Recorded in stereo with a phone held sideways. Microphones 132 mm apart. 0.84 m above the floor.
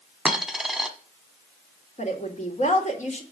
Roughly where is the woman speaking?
Left.